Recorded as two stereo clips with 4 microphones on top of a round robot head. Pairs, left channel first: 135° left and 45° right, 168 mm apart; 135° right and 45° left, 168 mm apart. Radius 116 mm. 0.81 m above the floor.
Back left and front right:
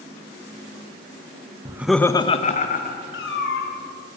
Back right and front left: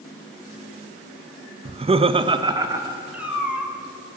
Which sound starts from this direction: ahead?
Laughter, at 1.6 s.